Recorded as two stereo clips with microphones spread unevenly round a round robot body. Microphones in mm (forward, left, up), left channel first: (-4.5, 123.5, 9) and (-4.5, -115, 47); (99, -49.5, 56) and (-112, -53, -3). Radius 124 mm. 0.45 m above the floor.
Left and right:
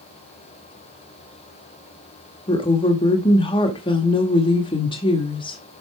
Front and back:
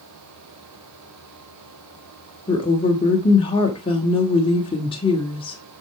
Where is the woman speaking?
75° left, 1.4 m.